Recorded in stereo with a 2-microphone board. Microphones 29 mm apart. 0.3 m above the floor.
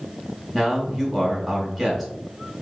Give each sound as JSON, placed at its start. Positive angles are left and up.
{"t": 0.5, "sound": "a man speaking", "side_deg": 5, "distance_m": 1.7}